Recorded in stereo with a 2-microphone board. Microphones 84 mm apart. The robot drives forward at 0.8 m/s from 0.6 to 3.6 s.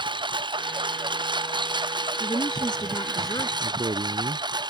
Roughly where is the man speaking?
Right.